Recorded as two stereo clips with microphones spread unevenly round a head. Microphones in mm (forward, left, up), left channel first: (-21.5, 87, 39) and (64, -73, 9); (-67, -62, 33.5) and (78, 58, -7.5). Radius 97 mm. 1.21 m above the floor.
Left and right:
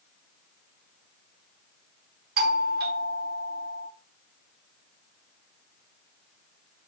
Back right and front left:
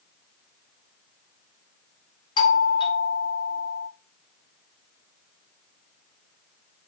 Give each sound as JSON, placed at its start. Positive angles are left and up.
{"t": 2.4, "sound": "a doorbell", "azimuth_deg": -70, "distance_m": 0.6}